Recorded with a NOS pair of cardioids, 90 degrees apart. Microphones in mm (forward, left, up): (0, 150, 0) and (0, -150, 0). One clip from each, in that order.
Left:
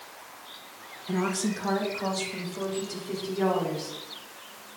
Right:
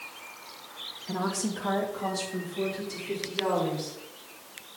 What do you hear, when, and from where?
1.1 s a woman speaking: 5° left, 1.6 m; by 4.0 s 15° left, 4.5 m